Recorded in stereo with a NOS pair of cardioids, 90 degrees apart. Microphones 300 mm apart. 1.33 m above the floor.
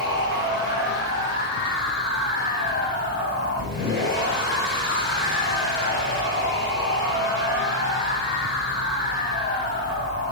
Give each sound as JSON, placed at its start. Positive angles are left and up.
{"t": 0.0, "sound": "a machine running", "azimuth_deg": 35, "distance_m": 6.0}